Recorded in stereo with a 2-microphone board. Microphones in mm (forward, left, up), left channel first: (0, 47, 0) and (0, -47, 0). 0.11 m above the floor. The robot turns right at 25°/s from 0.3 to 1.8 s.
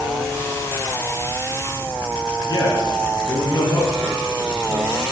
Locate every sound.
2.5 s a man speaking: 45° left (ahead or behind), 2.5 m